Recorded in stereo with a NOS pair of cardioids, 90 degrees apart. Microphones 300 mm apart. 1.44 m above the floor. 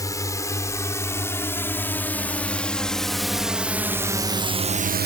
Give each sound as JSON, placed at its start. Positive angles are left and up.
{"t": 0.0, "sound": "a drone", "azimuth_deg": 10}